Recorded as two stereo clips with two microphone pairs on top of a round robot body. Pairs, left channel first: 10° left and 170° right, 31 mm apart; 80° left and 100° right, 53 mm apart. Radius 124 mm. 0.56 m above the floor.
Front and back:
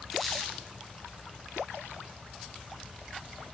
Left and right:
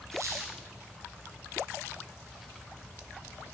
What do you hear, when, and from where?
0.1 s a squeak: 75° right, 1.3 m